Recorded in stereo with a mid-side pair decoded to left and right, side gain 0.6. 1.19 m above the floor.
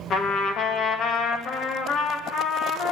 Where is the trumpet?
50° left, 1.9 m.